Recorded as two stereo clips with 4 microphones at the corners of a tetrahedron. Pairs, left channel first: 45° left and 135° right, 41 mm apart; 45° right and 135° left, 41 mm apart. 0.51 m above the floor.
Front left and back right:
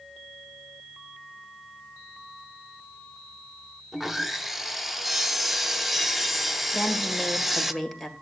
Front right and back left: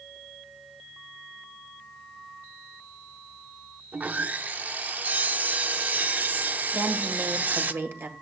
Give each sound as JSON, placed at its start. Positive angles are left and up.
{"t": 3.9, "sound": "sawing", "azimuth_deg": 140, "distance_m": 0.5}
{"t": 6.7, "sound": "a woman speaking", "azimuth_deg": 135, "distance_m": 1.7}